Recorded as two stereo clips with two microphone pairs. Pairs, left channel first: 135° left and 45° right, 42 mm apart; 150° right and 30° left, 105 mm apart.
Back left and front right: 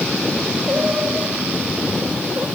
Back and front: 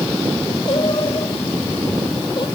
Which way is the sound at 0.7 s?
110° right.